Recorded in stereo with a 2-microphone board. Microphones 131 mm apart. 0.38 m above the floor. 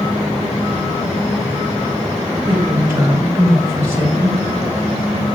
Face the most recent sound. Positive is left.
turn(degrees=-20)  # may be behind; listen again after turning